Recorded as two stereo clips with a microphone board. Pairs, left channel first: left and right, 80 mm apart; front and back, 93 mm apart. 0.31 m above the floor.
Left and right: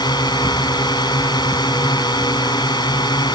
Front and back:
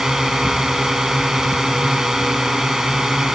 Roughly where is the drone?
Left.